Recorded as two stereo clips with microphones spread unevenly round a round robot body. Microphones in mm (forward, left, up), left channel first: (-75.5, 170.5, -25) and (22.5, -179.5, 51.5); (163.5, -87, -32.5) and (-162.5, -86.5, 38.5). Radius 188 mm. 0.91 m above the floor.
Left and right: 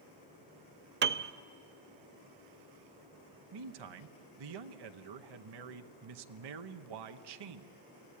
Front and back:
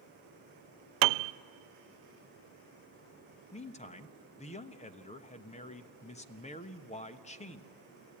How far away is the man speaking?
About 1.1 m.